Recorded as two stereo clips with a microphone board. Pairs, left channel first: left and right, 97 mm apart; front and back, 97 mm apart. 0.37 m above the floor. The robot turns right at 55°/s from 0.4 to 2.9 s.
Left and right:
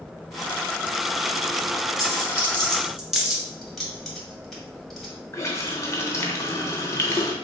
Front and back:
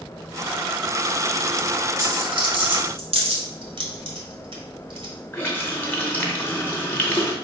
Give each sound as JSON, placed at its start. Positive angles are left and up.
{"t": 2.0, "sound": "a dropped coin", "azimuth_deg": 135, "distance_m": 1.2}
{"t": 3.6, "sound": "keys jangling", "azimuth_deg": 180, "distance_m": 1.3}
{"t": 5.3, "sound": "a running tap", "azimuth_deg": 55, "distance_m": 0.7}